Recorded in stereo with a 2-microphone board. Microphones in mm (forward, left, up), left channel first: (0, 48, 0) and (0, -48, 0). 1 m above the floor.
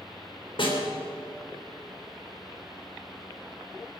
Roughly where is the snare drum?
Left.